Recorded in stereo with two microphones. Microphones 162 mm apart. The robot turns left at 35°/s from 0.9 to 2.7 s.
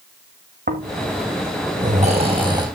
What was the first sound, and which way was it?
Snoring, 80° right.